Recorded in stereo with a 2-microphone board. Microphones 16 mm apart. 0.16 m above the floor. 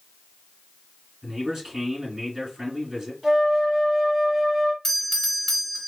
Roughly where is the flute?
Right.